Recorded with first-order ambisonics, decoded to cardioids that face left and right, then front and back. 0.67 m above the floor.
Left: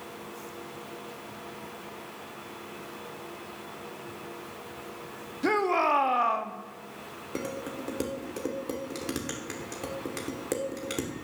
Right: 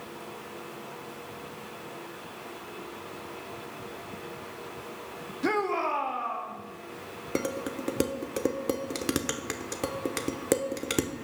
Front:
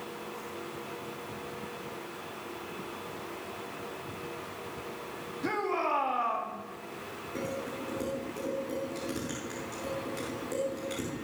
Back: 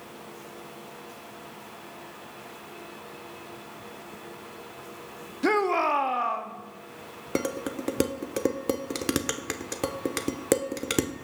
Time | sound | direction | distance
5.4 | a shout | straight behind | 0.9 m
7.3 | dishes clattering | 155° right | 0.9 m